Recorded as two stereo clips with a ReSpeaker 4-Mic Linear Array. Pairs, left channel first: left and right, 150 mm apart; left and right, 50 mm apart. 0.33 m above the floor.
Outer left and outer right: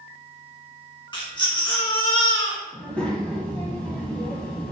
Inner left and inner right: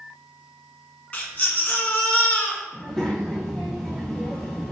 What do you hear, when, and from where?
1.1 s a baby crying: 30° left (ahead or behind), 1.4 m
2.7 s a child speaking: 5° left (ahead or behind), 1.5 m